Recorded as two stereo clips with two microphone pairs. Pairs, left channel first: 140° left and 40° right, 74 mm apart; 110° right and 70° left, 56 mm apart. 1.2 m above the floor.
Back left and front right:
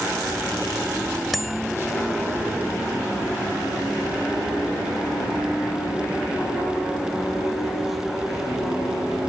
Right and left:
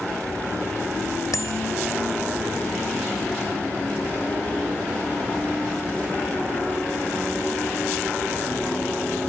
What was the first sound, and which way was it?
A bicycle bell, 130° right.